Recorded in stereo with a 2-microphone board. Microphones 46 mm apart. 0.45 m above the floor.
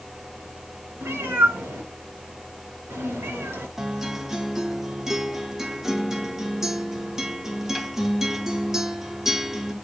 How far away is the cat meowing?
About 4 m.